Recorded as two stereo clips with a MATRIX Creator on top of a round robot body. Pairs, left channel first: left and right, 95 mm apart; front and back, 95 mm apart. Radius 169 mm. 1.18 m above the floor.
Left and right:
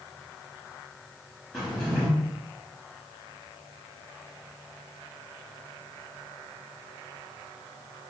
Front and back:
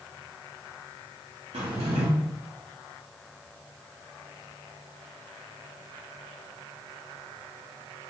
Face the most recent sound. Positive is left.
turn(degrees=170)